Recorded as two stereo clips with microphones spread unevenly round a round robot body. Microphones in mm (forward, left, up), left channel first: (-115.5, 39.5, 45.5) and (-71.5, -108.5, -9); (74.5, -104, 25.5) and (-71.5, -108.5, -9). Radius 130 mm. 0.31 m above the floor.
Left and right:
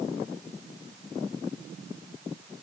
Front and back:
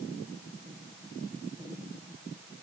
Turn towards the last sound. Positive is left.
No sound to turn to.